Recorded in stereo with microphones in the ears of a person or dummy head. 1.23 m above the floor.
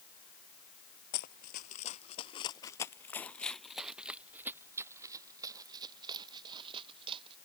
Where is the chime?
No chime in this recording.